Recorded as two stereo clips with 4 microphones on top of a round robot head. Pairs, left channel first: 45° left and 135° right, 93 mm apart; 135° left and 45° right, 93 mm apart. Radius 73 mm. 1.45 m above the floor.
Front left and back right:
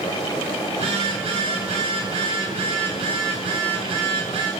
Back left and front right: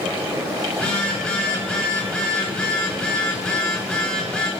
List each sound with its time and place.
0.7 s a phone buzzing: 145° right, 9.5 m